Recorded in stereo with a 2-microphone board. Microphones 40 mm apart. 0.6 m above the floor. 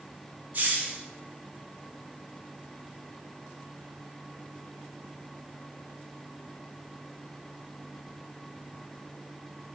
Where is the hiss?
40° right (ahead or behind), 1.0 m.